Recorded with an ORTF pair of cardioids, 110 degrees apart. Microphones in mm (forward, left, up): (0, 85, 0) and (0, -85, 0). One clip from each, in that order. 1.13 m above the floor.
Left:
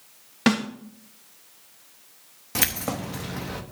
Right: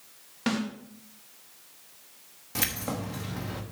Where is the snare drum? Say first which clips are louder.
Left 7 dB; 50° left, 1.3 m.